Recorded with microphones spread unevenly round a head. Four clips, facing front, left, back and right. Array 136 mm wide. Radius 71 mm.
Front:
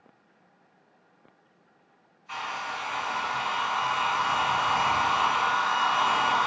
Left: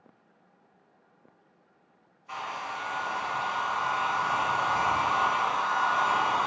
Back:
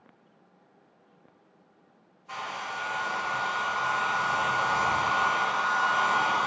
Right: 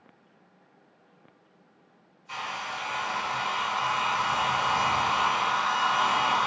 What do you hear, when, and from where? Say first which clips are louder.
2.3 s a hair dryer: even, front 2 dB; 135° left, 1.3 m